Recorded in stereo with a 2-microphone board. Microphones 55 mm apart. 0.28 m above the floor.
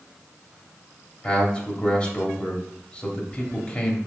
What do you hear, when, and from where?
1.2 s a man speaking: 25° left (ahead or behind), 1.0 m